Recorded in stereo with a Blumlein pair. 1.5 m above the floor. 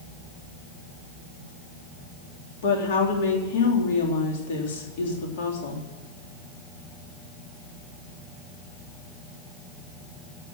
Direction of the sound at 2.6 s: 55° left.